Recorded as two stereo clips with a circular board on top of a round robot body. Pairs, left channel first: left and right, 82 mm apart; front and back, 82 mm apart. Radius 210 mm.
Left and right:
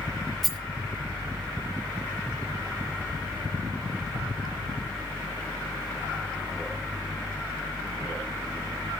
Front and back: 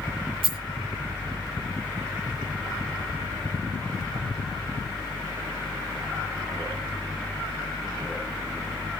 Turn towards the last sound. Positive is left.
turn(degrees=180)